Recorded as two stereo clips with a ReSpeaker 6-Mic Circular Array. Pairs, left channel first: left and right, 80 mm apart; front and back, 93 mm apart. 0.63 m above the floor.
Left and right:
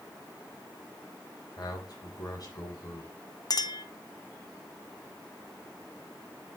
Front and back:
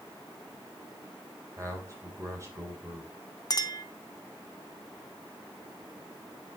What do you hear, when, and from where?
1.6 s a man speaking: 125° left, 3 m
3.5 s a clink: 50° left, 0.7 m